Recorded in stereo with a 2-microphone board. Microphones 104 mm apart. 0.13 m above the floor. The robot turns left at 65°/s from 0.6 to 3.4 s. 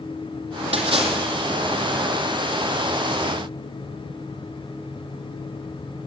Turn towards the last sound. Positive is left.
turn(degrees=90)